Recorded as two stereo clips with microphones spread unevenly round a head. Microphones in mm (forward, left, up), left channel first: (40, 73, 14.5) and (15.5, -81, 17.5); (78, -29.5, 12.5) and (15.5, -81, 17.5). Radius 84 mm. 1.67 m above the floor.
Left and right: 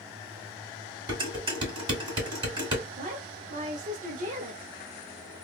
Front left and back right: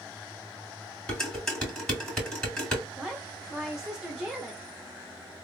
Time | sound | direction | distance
1.1 | dishes clattering | 40° right | 2 m
3.0 | a woman speaking | 55° right | 0.8 m